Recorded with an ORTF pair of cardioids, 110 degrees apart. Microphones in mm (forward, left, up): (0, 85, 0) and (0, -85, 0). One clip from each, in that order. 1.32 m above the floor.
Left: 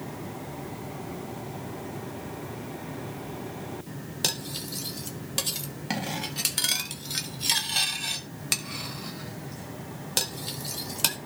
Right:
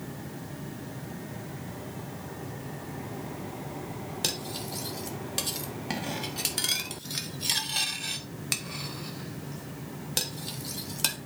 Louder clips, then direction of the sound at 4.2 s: Left 3 dB; 10° left.